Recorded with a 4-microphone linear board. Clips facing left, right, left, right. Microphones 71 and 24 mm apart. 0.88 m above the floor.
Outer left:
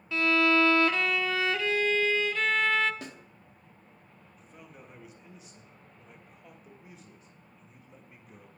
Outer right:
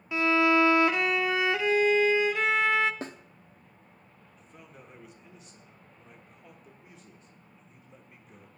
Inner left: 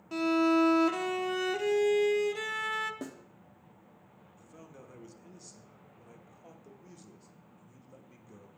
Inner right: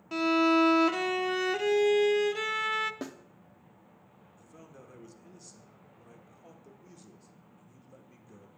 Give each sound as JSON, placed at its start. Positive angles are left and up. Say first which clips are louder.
{"t": 0.1, "sound": "a violin", "louder": "outer right 1 dB, inner right 2 dB", "side_deg": -20, "distance_m": 0.5}
{"t": 3.0, "sound": "a snare drum", "louder": "outer right 5 dB, inner right 2 dB", "side_deg": -35, "distance_m": 0.8}
{"t": 4.4, "sound": "a man speaking", "louder": "outer left 1 dB, even", "side_deg": 5, "distance_m": 1.5}